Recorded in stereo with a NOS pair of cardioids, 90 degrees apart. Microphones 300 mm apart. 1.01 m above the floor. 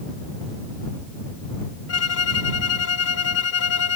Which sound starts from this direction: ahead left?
A violin, at 1.9 s.